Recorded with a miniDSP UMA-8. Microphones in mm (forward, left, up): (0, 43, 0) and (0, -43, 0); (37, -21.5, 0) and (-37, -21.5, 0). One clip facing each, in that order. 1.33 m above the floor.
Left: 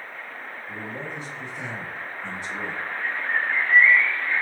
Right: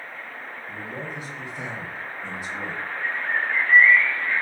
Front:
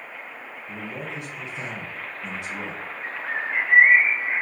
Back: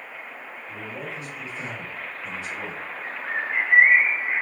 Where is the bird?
35° right, 1.4 m.